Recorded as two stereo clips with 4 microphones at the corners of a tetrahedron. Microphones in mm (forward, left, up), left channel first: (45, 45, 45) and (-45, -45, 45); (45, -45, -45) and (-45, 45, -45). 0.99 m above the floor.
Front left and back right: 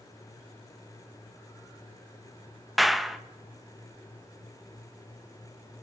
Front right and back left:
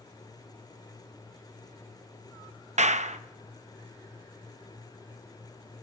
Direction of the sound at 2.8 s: 135° left.